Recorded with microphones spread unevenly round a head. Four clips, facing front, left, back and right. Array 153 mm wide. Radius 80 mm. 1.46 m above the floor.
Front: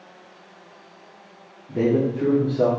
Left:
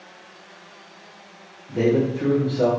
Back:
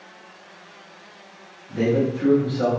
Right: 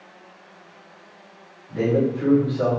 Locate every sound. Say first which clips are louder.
1.7 s a man speaking: left 1 dB, front 1 dB; 30° left, 1.3 m